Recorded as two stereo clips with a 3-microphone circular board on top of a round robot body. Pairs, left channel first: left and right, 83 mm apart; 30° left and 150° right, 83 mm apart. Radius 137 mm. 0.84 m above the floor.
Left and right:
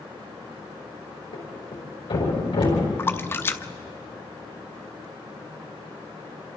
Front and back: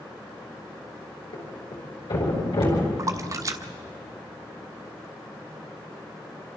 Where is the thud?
55° left, 5.5 m.